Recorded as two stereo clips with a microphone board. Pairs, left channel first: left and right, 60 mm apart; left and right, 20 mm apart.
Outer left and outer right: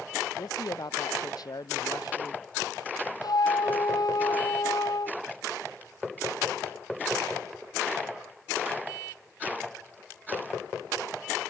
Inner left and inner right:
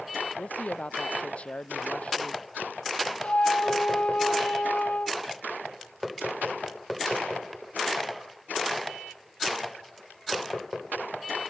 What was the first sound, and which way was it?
A woman speaking, 75° left (ahead or behind).